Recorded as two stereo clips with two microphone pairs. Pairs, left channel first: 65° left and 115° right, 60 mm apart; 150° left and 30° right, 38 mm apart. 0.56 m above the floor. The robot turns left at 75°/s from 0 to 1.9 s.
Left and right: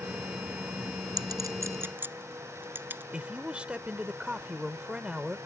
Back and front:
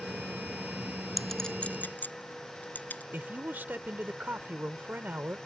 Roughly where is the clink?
Behind right.